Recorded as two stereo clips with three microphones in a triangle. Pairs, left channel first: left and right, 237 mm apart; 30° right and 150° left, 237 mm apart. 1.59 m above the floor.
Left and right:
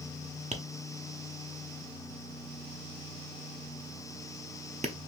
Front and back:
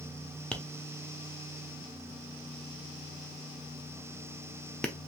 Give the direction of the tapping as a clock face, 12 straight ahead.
4 o'clock.